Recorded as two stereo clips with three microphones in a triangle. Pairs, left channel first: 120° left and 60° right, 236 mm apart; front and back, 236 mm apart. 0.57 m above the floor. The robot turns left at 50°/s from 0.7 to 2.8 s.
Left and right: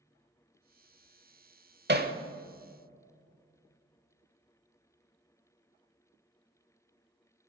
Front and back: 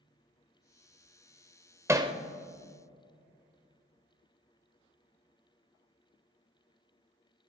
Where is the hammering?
100° right, 0.9 m; by 2.1 s 110° right, 0.9 m.